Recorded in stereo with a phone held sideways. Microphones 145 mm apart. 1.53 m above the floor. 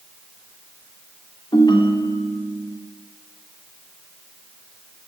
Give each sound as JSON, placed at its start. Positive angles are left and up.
{"t": 1.5, "sound": "a ringtone", "side_deg": 30, "distance_m": 3.0}